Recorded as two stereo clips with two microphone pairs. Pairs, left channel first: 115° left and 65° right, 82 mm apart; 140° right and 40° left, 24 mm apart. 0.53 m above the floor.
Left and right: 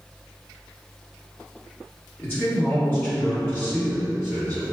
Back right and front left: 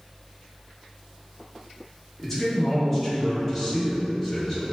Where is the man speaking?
140° left, 1.3 m.